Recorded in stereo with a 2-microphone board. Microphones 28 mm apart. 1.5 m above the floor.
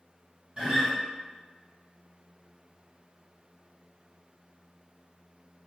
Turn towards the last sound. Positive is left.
turn(degrees=-25)  # may be behind; listen again after turning